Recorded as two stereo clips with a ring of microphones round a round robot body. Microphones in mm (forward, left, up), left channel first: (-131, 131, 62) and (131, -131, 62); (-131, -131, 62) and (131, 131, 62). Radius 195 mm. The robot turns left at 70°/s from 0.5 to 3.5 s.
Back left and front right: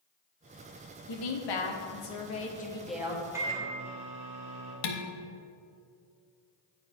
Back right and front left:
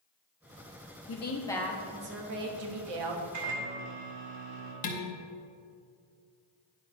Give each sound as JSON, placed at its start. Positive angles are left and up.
{"t": 1.1, "sound": "a woman speaking", "azimuth_deg": 175, "distance_m": 1.2}
{"t": 3.3, "sound": "a microwave", "azimuth_deg": 40, "distance_m": 1.7}
{"t": 4.8, "sound": "dishes clattering", "azimuth_deg": 155, "distance_m": 0.9}